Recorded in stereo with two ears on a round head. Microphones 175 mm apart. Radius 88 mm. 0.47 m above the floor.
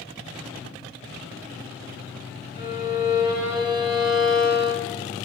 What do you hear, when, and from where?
2.6 s a violin: 20° right (ahead or behind), 3.5 m